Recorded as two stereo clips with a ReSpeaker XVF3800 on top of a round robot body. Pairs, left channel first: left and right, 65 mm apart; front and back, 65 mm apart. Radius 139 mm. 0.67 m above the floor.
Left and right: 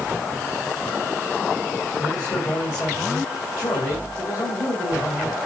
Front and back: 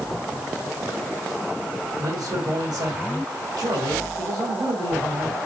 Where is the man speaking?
150° left, 3.5 m.